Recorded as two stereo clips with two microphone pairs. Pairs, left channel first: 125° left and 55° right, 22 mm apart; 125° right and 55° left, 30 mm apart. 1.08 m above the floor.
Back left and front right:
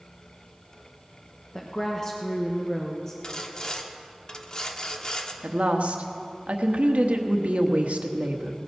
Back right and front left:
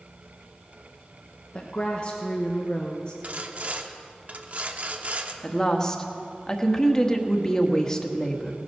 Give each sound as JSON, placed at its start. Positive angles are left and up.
{"t": 1.5, "sound": "a woman speaking", "azimuth_deg": -170, "distance_m": 1.0}
{"t": 3.2, "sound": "sawing", "azimuth_deg": 80, "distance_m": 0.9}
{"t": 5.4, "sound": "a woman speaking", "azimuth_deg": -55, "distance_m": 1.2}